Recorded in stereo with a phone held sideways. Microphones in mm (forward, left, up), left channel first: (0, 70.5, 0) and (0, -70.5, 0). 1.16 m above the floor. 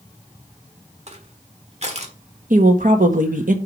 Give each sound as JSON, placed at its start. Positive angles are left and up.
{"t": 1.1, "sound": "crushing", "side_deg": -50, "distance_m": 1.3}
{"t": 2.5, "sound": "a woman speaking", "side_deg": -70, "distance_m": 1.5}